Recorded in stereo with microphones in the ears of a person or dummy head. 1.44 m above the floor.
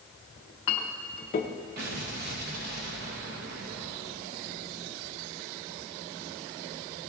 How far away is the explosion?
About 1.0 m.